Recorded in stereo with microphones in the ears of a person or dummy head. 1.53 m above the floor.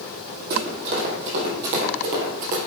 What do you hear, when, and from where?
0.5 s running footsteps: 65° right (ahead or behind), 4 m; by 2.6 s 50° right (ahead or behind), 2 m